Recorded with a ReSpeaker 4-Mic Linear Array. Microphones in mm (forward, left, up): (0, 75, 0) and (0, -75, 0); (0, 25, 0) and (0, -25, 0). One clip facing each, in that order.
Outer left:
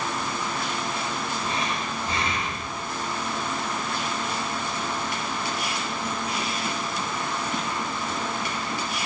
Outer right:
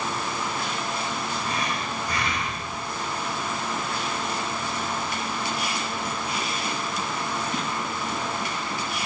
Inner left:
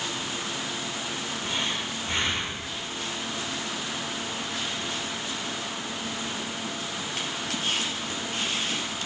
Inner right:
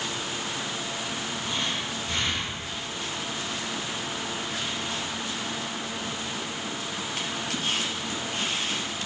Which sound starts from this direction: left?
Breathing, at 1.4 s.